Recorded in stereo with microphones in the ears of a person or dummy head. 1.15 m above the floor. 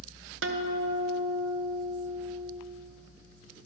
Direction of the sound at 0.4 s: 60° right (ahead or behind).